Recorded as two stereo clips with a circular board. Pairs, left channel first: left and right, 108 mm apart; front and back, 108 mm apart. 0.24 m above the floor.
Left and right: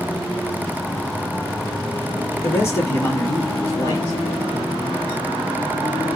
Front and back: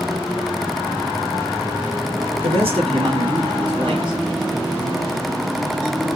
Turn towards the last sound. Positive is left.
turn(degrees=150)